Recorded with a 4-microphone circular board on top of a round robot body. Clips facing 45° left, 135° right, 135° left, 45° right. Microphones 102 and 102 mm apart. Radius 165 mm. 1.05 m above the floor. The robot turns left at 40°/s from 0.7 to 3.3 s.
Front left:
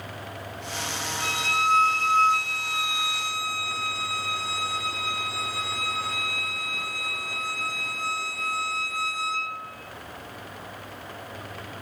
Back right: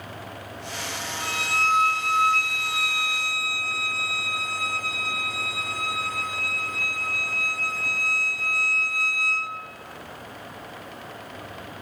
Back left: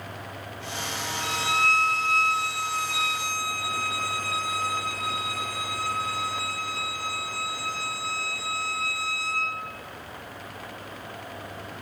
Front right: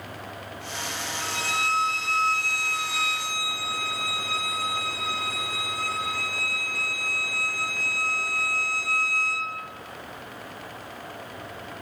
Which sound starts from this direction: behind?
A violin, at 1.2 s.